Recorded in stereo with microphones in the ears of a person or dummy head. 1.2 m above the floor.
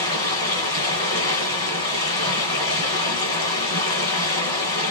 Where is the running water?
25° left (ahead or behind), 1.4 m.